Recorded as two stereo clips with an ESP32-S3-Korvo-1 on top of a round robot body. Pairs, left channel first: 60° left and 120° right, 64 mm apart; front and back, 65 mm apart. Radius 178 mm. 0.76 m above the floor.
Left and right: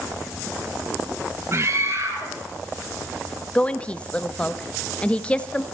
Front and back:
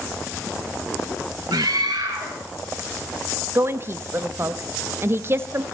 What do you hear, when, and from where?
1.5 s a scream: 165° right, 4.5 m
3.5 s a woman speaking: 130° left, 1.3 m